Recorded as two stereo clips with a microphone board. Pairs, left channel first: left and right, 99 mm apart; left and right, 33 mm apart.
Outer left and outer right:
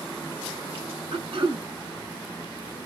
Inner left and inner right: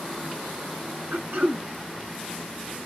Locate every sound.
1.1 s throat clearing: 70° right (ahead or behind), 1.2 m